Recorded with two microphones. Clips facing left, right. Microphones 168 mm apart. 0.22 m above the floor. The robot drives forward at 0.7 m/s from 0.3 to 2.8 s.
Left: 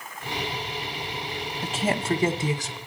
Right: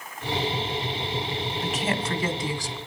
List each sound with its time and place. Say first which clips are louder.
1.6 s a woman speaking: left 4 dB; 30° left (ahead or behind), 1.1 m; by 2.8 s 20° left (ahead or behind), 1.5 m